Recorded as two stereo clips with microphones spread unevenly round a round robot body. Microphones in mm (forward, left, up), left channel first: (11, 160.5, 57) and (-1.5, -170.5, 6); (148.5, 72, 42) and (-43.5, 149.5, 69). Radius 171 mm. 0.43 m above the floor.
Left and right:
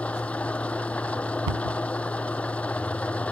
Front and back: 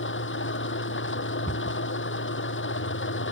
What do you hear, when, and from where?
0.0 s an engine running: straight ahead
1.5 s a cupboard door: 105° right